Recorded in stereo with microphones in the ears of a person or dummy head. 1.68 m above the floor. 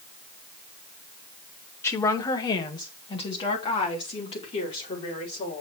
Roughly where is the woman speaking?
Centre.